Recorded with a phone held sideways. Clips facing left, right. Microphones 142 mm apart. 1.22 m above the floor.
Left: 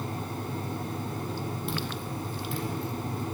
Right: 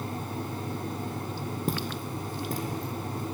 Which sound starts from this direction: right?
Footsteps, at 1.7 s.